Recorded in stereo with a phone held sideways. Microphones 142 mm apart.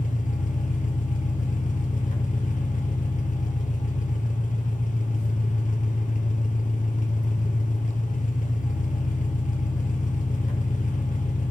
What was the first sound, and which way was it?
An engine running, 60° left (ahead or behind).